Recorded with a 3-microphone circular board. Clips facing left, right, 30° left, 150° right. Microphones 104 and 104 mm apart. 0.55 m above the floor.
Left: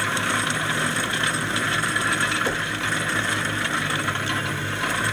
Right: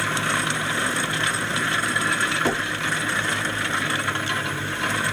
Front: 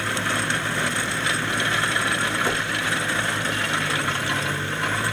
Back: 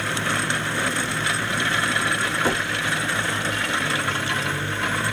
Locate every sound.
2.5 s knocking: 90° right, 2.5 m